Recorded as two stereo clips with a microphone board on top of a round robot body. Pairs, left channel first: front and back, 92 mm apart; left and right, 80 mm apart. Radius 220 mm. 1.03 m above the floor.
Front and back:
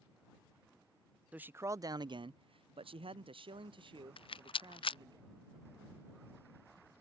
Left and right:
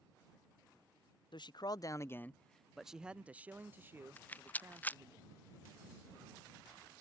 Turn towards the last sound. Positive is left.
turn(degrees=20)